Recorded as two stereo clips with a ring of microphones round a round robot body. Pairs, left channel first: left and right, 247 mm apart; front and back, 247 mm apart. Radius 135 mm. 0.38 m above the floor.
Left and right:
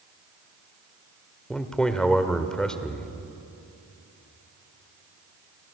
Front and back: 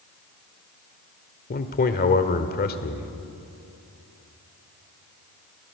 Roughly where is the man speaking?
Ahead.